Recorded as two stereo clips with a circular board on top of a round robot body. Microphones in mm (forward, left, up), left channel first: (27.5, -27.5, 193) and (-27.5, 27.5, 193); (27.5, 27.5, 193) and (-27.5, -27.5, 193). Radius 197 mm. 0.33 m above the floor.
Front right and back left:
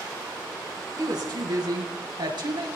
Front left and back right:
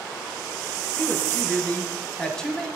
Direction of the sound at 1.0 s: 105° left.